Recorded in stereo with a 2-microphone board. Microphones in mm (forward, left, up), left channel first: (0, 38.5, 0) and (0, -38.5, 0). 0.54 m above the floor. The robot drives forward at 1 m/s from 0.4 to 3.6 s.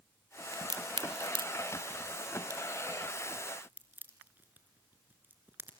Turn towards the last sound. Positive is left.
turn(degrees=-25)  # may be behind; listen again after turning